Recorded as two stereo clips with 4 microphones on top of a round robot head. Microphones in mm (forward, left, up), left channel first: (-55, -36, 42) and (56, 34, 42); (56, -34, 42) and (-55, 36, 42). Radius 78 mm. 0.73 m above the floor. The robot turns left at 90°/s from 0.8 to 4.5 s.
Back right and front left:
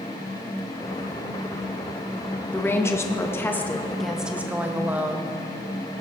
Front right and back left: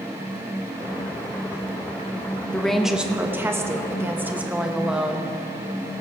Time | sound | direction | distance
2.5 | a woman speaking | 100° right | 1.0 m